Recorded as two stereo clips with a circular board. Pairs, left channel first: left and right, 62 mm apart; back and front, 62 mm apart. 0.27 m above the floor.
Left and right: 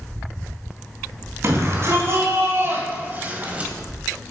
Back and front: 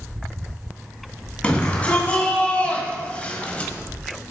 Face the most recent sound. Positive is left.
turn(degrees=-135)